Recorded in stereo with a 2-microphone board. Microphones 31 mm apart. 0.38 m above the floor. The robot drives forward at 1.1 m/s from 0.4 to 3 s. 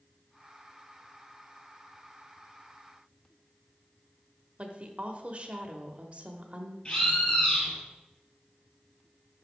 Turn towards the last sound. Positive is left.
turn(degrees=25)  # may be behind; listen again after turning